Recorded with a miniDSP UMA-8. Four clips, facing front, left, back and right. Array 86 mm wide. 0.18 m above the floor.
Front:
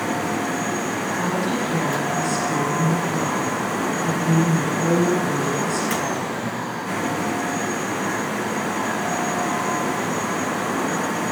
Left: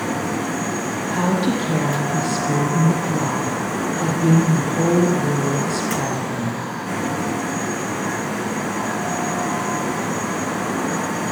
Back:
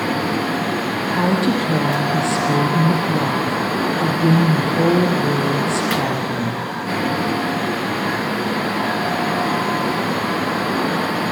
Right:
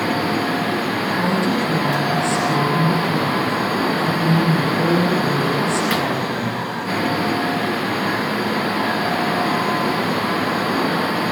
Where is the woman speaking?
155° left, 6 m.